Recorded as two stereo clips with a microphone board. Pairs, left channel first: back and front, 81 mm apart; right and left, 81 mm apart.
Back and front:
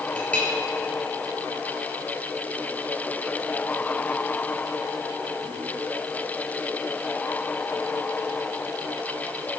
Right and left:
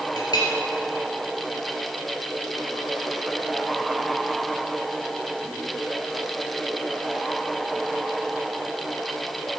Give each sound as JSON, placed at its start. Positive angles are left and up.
{"t": 0.2, "sound": "a clink", "azimuth_deg": -110, "distance_m": 2.0}